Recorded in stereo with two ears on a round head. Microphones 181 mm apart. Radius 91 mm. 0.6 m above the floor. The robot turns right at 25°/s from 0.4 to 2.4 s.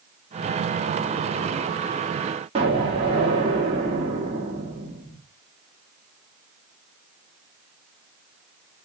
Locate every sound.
2.5 s an explosion: 30° right (ahead or behind), 1.2 m